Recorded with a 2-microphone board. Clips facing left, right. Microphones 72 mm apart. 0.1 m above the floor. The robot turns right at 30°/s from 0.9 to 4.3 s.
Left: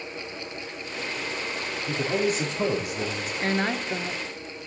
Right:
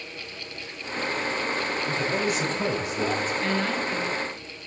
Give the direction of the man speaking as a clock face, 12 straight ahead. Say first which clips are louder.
Left 4 dB; 8 o'clock.